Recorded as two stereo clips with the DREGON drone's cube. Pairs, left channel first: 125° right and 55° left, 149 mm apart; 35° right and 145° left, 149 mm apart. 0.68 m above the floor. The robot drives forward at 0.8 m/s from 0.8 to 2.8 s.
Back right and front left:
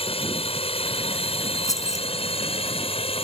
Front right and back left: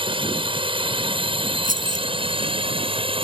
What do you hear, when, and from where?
0.0 s a drone: 165° right; by 3.2 s 170° right
1.6 s keys jangling: 165° left; by 2.1 s 170° left